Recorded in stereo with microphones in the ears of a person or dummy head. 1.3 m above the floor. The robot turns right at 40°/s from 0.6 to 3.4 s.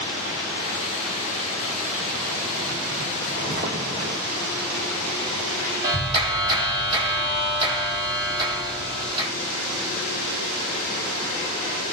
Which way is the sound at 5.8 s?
30° right (ahead or behind).